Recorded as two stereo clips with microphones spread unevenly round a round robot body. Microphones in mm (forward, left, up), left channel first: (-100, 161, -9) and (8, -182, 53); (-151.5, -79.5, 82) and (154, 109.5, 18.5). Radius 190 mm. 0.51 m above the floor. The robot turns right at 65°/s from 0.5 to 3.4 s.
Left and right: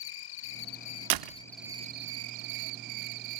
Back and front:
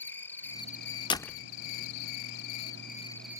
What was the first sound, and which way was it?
An insect, 125° left.